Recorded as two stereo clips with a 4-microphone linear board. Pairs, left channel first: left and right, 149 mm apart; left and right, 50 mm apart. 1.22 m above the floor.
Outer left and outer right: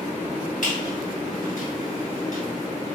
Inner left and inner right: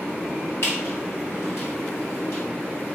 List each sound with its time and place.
0.6 s a squeak: 65° left (ahead or behind), 2.5 m